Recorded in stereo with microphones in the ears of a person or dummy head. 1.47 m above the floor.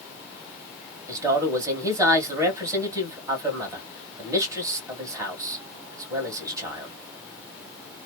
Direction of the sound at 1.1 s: 10° right (ahead or behind).